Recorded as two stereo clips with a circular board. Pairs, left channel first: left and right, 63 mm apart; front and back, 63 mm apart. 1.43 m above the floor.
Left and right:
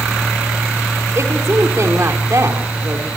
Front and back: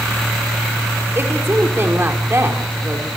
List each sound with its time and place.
1.1 s a woman speaking: 130° right, 4 m